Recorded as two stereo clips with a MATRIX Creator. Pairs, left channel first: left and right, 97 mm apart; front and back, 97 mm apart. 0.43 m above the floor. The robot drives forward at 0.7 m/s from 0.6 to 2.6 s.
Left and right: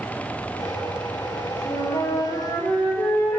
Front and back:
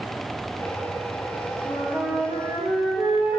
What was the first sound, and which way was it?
A flute, 95° left.